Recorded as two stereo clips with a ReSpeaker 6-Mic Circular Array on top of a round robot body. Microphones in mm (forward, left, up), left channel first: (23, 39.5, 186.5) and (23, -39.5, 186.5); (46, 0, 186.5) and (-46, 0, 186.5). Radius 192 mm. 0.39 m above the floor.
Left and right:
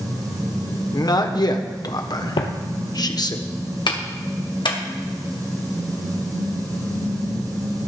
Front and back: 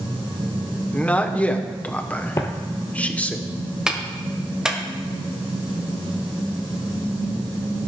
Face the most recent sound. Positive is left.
turn(degrees=100)